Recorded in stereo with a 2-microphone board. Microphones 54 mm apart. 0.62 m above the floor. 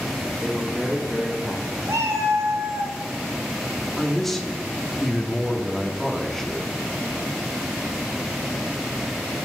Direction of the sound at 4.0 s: 5° left (ahead or behind).